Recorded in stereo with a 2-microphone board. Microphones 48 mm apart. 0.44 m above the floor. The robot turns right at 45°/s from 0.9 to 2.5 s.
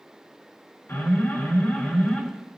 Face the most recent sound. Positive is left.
turn(degrees=180)